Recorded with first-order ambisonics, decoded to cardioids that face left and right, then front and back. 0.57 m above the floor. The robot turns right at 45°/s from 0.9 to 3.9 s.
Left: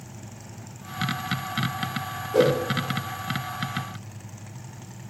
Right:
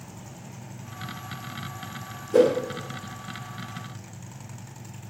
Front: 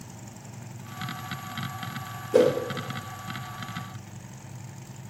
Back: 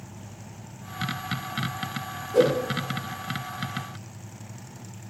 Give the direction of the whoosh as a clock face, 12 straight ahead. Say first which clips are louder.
Right 2 dB, front 1 dB; 1 o'clock.